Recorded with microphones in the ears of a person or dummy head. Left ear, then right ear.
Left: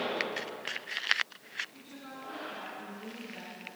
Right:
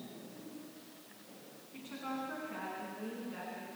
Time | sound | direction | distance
1.7 | a woman speaking | 25° right (ahead or behind) | 9 m